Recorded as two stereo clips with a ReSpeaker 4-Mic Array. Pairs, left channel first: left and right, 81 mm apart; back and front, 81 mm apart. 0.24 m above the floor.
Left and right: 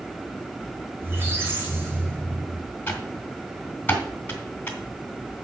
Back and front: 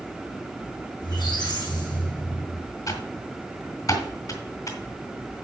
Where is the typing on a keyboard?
155° left, 2.5 m.